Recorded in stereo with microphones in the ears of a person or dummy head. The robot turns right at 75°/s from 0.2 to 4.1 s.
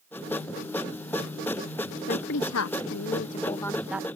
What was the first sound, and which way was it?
A woman speaking, 45° left.